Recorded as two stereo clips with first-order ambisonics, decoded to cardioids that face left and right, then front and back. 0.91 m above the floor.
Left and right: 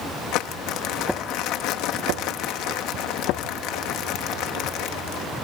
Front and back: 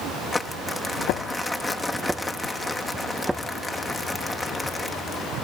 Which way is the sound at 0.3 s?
80° left.